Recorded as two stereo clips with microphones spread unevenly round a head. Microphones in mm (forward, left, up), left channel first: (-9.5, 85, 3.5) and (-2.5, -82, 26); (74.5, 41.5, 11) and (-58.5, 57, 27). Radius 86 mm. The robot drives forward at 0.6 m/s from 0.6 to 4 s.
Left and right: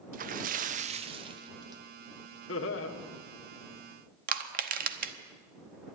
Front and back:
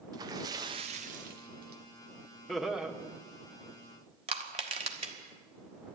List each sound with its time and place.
0.1 s a splash: 120° right, 0.6 m; by 1.8 s 155° right, 1.1 m
2.5 s laughter: 80° left, 1.5 m; by 2.9 s 90° left, 1.5 m
4.3 s crushing: 130° right, 1.0 m